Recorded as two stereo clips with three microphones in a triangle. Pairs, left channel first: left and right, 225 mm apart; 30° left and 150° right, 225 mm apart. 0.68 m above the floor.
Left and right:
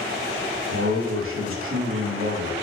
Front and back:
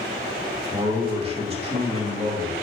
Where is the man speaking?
90° right, 3 m.